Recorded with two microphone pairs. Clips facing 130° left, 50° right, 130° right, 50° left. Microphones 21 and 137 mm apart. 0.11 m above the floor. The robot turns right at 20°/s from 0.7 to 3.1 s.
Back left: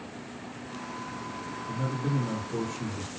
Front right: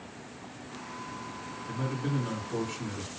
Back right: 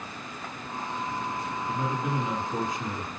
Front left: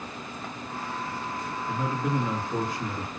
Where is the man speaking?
60° right, 3 m; by 3.1 s 35° right, 3 m.